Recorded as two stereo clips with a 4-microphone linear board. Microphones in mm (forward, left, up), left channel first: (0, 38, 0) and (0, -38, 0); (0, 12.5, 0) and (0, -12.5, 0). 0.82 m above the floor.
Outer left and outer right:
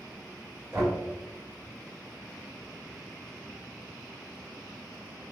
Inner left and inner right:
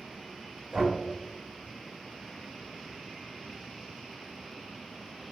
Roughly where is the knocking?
Right.